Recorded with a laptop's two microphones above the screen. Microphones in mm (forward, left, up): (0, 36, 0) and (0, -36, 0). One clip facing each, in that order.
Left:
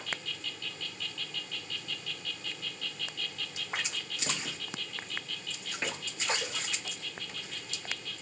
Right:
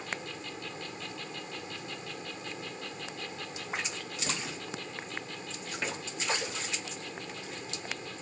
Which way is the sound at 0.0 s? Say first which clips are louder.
Right 1 dB; 35° right (ahead or behind).